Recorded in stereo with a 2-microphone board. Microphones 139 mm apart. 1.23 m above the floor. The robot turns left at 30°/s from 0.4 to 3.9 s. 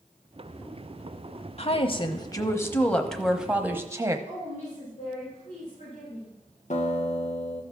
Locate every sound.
1.6 s a woman speaking: 50° left, 1.0 m; by 4.2 s 20° right, 1.0 m
4.3 s a woman speaking: 65° left (ahead or behind), 5.5 m
6.7 s a guitar: 55° left (ahead or behind), 1.5 m